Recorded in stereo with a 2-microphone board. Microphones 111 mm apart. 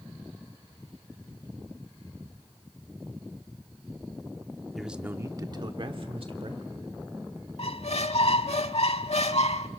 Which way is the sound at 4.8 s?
Centre (ahead or behind).